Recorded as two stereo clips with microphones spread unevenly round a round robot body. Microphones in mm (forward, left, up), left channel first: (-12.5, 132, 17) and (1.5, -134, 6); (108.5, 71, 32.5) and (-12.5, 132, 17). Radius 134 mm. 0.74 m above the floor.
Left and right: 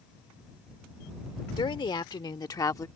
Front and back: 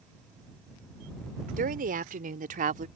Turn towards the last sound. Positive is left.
turn(degrees=170)